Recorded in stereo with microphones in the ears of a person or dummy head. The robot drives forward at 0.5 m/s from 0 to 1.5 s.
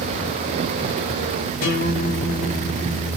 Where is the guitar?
80° left, 2.5 m.